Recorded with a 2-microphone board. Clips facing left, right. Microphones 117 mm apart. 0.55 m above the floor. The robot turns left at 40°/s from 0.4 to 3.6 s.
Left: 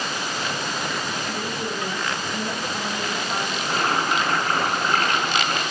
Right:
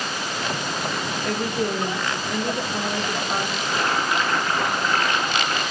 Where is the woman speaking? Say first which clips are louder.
Right 4 dB; 60° right, 2.5 m; by 3.5 s 150° right, 2.5 m.